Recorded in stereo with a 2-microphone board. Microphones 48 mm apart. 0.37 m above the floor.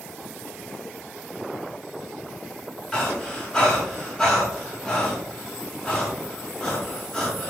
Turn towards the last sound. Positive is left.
turn(degrees=15)  # may be behind; listen again after turning